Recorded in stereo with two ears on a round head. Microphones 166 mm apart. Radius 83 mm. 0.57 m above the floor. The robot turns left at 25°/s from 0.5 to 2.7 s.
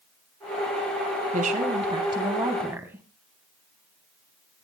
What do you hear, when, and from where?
1.3 s a woman speaking: 135° right, 3 m; by 3.0 s 170° right, 3 m